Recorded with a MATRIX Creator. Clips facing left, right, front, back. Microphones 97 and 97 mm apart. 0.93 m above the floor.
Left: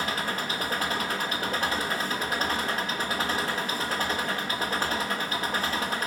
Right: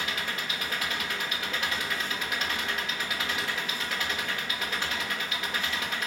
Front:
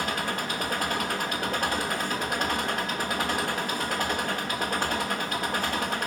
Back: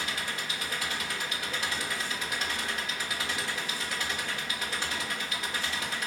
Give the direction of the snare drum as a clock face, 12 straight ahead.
No snare drum in this recording.